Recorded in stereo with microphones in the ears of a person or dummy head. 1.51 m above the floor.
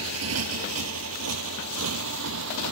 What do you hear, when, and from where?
0.0 s a motorcycle: 80° right; by 2.7 s 70° right (ahead or behind)